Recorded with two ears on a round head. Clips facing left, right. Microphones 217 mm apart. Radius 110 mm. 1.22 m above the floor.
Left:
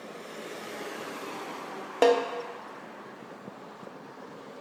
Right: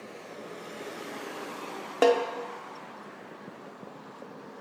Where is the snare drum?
5° right (ahead or behind), 0.6 m.